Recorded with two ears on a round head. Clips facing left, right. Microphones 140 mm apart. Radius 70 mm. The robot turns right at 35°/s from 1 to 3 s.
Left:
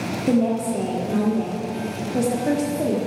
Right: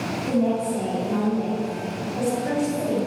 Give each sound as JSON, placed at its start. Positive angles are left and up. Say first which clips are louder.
{"t": 0.3, "sound": "a woman speaking", "louder": "left 3 dB", "azimuth_deg": 55, "distance_m": 1.7}